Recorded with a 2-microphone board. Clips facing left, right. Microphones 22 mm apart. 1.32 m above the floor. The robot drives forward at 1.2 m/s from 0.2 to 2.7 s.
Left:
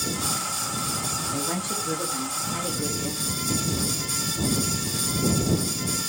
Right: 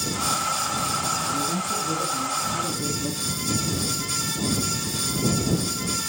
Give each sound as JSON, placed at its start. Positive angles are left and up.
{"t": 1.3, "sound": "a woman speaking", "side_deg": 50, "distance_m": 1.9}